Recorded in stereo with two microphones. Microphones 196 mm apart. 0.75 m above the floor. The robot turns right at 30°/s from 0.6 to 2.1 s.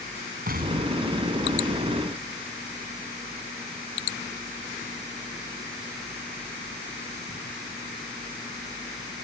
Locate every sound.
0.5 s an explosion: 45° right (ahead or behind); by 1.9 s 80° right